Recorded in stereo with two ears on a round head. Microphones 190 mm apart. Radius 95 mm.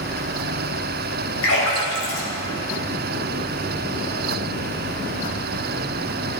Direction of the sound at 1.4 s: 75° left (ahead or behind).